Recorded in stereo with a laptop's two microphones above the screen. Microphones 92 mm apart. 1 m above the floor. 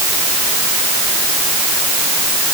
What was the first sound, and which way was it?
Only background noise.